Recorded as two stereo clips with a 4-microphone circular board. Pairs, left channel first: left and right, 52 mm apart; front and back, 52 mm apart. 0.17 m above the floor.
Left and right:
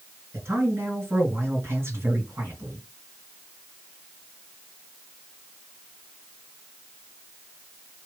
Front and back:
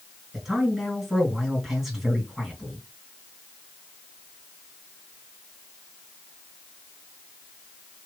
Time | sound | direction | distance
0.3 | a man speaking | 95° right | 2.5 m